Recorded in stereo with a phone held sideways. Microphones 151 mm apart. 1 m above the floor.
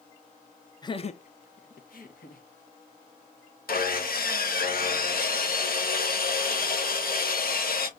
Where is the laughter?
25° left (ahead or behind), 0.6 m; by 2.4 s 70° left (ahead or behind), 1.6 m.